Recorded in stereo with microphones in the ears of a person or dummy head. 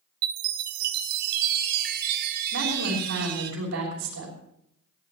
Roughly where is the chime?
Right.